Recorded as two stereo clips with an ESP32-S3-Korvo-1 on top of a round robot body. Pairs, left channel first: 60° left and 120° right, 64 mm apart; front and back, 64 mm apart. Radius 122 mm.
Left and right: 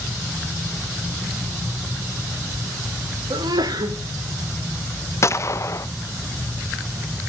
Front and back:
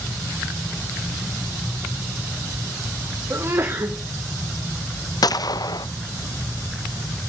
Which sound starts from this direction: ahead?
A gunshot, at 5.2 s.